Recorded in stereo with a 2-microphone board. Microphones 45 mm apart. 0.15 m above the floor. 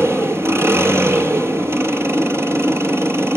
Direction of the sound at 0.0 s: 70° right (ahead or behind).